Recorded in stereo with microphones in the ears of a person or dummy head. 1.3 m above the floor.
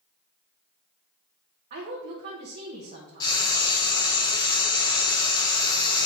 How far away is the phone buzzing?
No phone buzzing in this recording.